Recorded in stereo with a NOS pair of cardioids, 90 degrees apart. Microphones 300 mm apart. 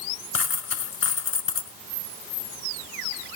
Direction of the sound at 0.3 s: 50° left.